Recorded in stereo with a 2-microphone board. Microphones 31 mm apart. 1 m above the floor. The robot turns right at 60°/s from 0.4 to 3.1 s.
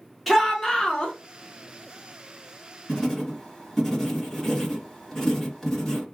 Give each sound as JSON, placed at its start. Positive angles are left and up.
{"t": 0.3, "sound": "a shout", "azimuth_deg": 0, "distance_m": 1.1}
{"t": 2.9, "sound": "writing", "side_deg": 25, "distance_m": 2.5}